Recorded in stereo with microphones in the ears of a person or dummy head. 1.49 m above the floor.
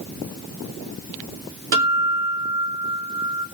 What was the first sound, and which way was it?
A guitar, 65° right (ahead or behind).